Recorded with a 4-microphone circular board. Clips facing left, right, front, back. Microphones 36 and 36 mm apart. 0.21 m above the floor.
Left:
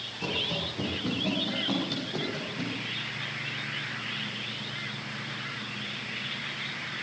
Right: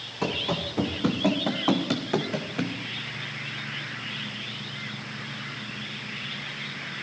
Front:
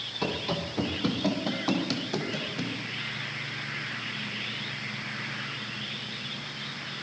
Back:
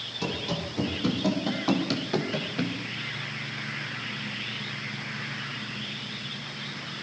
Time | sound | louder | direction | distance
0.2 | running footsteps | right 3 dB, front 1 dB | 60° right | 4.5 m